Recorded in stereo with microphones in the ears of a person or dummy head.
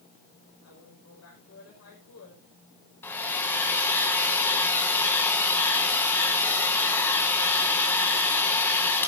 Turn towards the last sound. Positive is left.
turn(degrees=10)  # may be behind; listen again after turning